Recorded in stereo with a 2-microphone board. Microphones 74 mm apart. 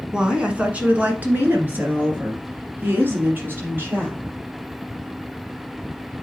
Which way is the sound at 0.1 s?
10° right (ahead or behind).